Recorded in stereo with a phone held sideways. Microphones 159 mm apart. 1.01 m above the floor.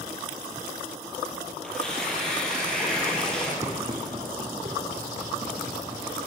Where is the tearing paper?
5° left (ahead or behind), 9 m.